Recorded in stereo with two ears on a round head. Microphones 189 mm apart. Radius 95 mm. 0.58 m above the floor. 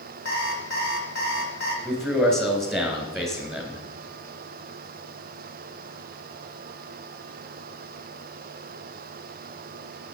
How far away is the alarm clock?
About 2.5 m.